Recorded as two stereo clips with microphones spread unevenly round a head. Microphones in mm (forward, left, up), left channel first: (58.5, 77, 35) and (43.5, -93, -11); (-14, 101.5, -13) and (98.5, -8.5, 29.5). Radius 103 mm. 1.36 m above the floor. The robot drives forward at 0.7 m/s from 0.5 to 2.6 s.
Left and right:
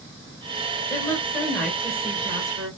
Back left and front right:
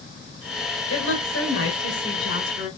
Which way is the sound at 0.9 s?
160° left.